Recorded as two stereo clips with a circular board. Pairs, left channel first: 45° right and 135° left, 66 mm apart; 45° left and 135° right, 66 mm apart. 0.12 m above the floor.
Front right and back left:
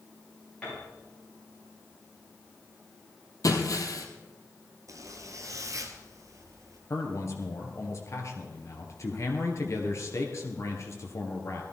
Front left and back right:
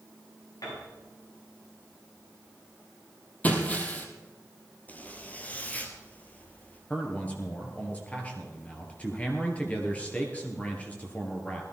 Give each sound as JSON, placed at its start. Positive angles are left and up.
{"t": 0.6, "sound": "a piano", "azimuth_deg": 25, "distance_m": 7.5}
{"t": 3.4, "sound": "breaking glass", "azimuth_deg": -20, "distance_m": 1.9}
{"t": 4.9, "sound": "a zipper", "azimuth_deg": 110, "distance_m": 1.6}
{"t": 6.9, "sound": "a man speaking", "azimuth_deg": -20, "distance_m": 2.5}